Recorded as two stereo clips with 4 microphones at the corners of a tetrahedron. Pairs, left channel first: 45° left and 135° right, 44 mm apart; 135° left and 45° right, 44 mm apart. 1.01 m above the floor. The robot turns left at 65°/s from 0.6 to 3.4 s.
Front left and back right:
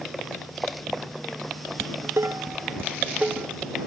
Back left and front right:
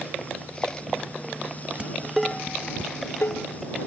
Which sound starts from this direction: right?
Dishes clattering, at 1.8 s.